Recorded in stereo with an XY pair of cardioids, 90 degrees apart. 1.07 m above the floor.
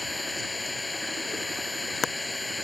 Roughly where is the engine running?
Ahead.